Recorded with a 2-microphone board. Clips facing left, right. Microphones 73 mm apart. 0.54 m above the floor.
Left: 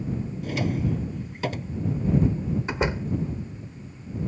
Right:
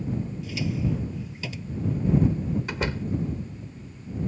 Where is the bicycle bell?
No bicycle bell in this recording.